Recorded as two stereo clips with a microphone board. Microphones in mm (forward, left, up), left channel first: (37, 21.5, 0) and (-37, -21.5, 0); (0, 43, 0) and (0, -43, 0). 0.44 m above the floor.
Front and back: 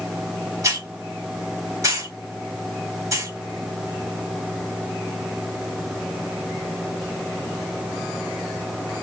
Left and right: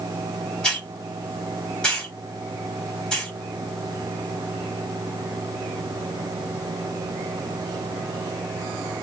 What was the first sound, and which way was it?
A hiss, 170° left.